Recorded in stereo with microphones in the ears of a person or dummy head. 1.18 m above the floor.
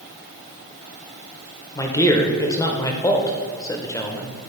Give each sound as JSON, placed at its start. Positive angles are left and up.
{"t": 1.8, "sound": "a man speaking", "side_deg": 15, "distance_m": 0.9}